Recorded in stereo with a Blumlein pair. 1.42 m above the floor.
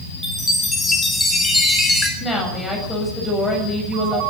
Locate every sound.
0.2 s a chime: 10° left, 4.5 m
2.2 s a woman speaking: 10° left, 7.5 m